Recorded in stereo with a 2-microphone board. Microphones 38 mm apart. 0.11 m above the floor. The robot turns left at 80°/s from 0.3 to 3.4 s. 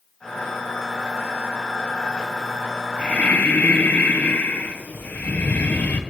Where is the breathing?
145° left, 0.9 m; by 6.0 s 110° left, 0.9 m.